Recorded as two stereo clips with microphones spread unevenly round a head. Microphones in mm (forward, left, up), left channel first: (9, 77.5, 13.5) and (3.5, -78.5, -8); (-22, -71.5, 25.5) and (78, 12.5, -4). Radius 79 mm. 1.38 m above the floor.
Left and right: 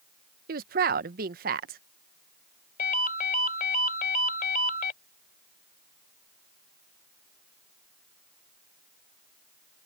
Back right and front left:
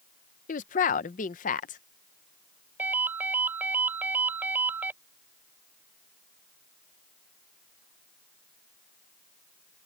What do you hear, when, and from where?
0.5 s a woman speaking: 130° right
2.8 s a ringtone: 125° left